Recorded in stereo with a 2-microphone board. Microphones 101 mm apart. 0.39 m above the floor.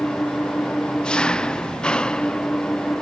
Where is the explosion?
I don't hear an explosion.